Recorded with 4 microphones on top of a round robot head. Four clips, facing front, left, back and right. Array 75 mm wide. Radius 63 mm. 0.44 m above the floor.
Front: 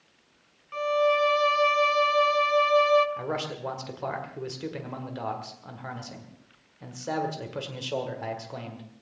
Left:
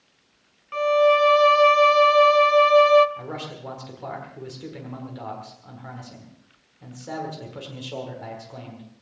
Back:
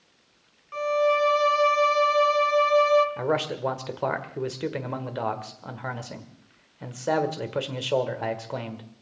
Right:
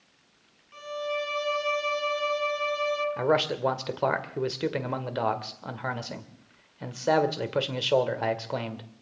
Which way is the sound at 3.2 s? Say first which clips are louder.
Right 10 dB, back 6 dB; 120° right.